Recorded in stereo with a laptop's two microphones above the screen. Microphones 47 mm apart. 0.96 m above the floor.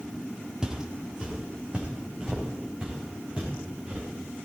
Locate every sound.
0.6 s footsteps: 15° right (ahead or behind), 1.3 m; by 4.0 s 20° right (ahead or behind), 5 m